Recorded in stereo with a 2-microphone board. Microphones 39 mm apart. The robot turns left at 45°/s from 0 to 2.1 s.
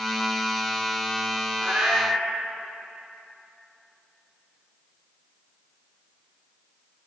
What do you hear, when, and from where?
1.6 s a cat meowing: 55° right (ahead or behind), 1.3 m; by 2.2 s 70° right (ahead or behind), 1.3 m